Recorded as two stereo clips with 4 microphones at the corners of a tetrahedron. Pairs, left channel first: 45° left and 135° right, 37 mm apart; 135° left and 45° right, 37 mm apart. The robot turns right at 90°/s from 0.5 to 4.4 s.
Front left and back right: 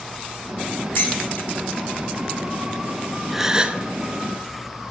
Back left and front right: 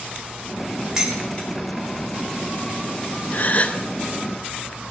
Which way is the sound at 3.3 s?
140° left.